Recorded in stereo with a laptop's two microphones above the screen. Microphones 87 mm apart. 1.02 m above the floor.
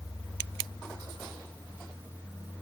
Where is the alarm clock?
No alarm clock in this recording.